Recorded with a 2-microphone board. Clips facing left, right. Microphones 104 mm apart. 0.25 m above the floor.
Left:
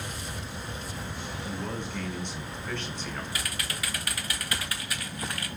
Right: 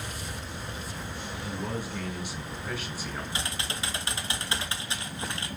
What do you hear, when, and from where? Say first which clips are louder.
1.4 s a man speaking: right 1 dB; 5° right (ahead or behind), 3 m
3.3 s typing on a keyboard: right 1 dB; 25° right (ahead or behind), 1.0 m